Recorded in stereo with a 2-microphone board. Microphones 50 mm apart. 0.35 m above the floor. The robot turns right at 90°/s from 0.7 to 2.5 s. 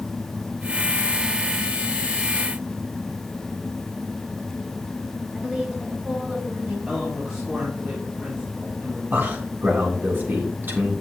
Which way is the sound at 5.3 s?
20° right (ahead or behind).